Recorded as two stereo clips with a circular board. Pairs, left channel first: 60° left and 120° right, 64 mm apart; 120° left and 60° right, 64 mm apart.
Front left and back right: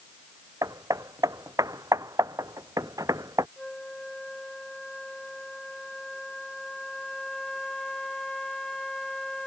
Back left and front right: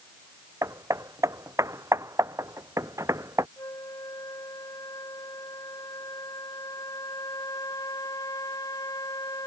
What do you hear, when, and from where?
0.6 s hammering: 95° right
3.6 s a flute: 140° left